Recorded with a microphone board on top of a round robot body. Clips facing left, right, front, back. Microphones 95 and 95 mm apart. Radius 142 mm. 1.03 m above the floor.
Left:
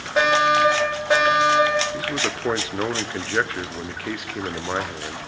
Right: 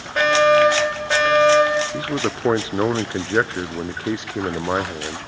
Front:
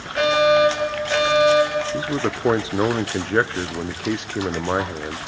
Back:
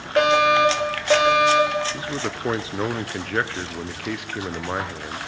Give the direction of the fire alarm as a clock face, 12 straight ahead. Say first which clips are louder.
Right 3 dB, front 1 dB; 6 o'clock.